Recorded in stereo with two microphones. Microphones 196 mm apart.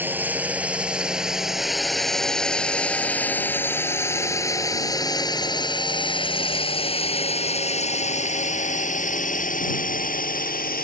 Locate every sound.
0.0 s a drone: 10° right (ahead or behind); by 10.8 s 45° left (ahead or behind)